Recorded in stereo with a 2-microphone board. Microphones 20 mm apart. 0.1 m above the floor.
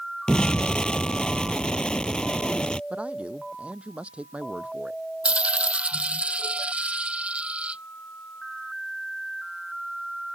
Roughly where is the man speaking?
Right.